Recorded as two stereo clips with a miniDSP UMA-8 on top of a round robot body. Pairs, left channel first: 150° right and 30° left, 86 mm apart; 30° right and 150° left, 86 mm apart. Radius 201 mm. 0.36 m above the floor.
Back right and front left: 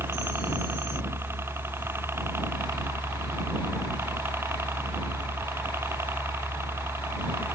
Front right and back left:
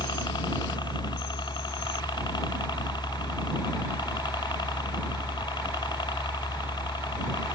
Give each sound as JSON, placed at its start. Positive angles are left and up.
{"t": 0.0, "sound": "a helicopter", "azimuth_deg": -25}